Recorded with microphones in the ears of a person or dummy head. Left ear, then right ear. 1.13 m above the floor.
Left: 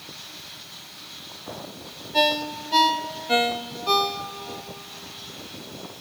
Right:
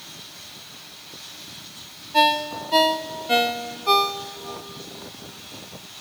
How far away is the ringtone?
About 0.8 m.